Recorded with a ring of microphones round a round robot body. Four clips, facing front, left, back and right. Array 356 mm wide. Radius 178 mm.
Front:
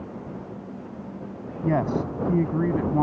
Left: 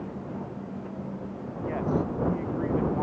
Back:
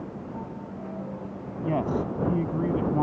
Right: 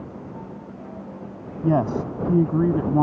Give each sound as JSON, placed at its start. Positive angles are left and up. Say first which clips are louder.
{"t": 1.6, "sound": "a man speaking", "louder": "right 7 dB, front 3 dB", "azimuth_deg": -80}